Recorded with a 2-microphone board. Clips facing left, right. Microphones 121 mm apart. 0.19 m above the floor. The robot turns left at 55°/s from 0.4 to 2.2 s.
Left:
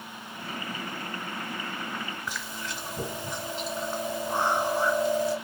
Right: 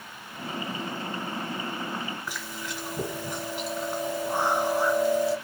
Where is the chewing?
5° right (ahead or behind), 2.0 m.